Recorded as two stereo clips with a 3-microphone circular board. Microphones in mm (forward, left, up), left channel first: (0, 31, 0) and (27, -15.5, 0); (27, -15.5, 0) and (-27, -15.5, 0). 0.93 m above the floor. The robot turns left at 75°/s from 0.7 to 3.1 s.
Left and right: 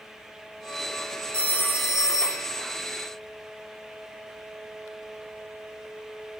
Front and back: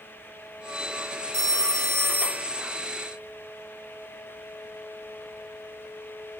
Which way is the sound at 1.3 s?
165° right.